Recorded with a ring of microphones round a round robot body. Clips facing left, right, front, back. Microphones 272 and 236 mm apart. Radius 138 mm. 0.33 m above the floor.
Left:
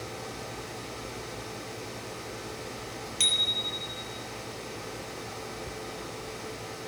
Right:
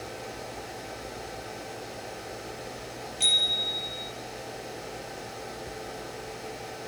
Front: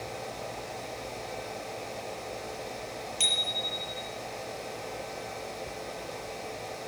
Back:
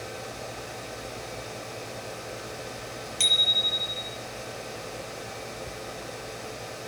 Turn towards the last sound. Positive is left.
turn(degrees=115)